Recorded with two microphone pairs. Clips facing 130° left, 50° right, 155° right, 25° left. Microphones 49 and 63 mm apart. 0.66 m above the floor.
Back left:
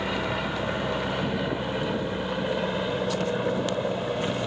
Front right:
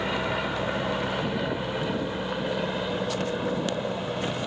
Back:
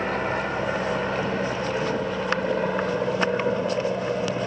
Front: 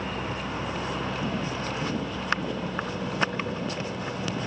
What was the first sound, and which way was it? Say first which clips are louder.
An aircraft: even, back 7 dB; 135° right.